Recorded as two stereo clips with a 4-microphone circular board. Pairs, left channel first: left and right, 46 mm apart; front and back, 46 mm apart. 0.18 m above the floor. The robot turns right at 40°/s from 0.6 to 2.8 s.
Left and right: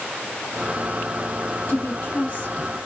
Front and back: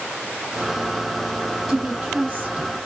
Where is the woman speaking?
115° left, 1.8 m; by 2.7 s 160° left, 1.8 m.